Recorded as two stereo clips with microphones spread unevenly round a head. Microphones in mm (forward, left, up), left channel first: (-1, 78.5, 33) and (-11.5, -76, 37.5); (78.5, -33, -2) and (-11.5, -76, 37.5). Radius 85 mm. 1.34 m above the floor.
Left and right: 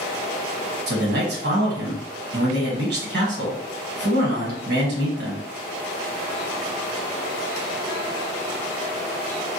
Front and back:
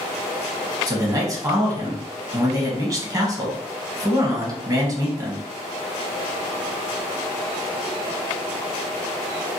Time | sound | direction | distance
0.9 | a man speaking | 95° right | 1.2 m